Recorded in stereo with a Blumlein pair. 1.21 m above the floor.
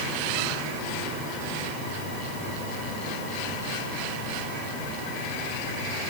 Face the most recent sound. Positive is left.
No sound to turn to.